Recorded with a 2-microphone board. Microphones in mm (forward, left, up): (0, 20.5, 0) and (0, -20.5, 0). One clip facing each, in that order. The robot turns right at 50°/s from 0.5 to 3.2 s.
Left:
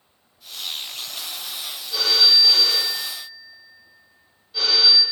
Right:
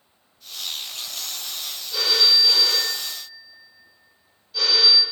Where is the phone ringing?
100° left, 1.4 m; by 5.0 s 165° left, 1.4 m.